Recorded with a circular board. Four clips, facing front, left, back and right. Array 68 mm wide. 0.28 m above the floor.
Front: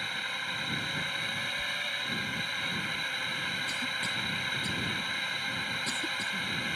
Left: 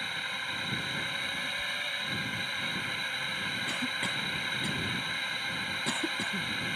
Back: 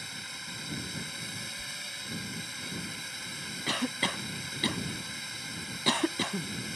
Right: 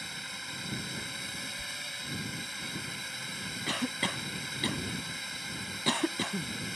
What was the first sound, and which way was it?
A drone, 40° left.